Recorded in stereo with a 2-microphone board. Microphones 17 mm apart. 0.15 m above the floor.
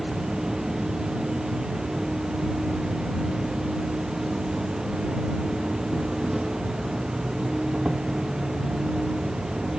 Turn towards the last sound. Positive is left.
turn(degrees=-45)  # may be behind; listen again after turning